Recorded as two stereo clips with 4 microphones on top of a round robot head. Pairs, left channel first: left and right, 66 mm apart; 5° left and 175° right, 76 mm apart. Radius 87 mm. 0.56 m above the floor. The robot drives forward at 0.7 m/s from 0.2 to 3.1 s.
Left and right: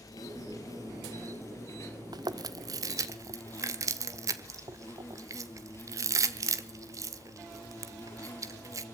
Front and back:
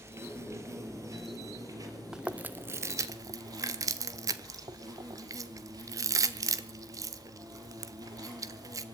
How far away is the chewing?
About 1.0 m.